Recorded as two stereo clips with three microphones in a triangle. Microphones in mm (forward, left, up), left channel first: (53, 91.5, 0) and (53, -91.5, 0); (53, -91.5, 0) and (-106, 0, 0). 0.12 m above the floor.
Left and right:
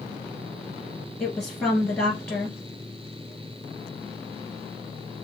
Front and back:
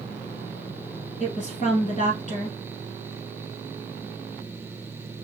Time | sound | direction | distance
1.2 | a woman speaking | 5° left | 2 m